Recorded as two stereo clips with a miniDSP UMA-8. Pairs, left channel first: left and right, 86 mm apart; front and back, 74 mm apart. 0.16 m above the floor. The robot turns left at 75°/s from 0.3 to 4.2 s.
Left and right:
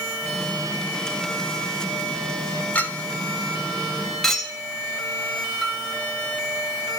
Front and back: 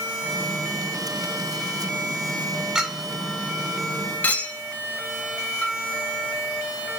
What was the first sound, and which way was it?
A clink, 115° left.